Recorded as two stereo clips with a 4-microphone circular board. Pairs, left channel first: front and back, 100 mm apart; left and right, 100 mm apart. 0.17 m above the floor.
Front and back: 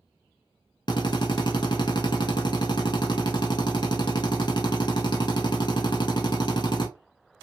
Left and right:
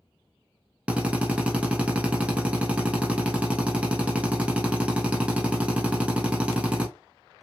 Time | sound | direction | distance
0.9 | a drill | 15° right | 0.8 m